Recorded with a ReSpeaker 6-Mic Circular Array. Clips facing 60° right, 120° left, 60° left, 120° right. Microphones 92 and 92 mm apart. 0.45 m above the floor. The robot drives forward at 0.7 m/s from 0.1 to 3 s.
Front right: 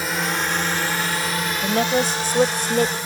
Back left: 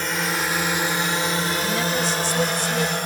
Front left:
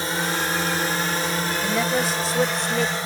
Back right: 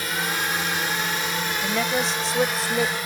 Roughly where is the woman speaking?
Ahead right.